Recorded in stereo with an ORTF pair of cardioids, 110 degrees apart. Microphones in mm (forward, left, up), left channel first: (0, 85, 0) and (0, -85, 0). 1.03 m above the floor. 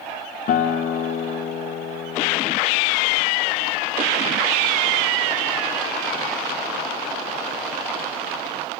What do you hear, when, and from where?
0.5 s a guitar: 55° left, 0.8 m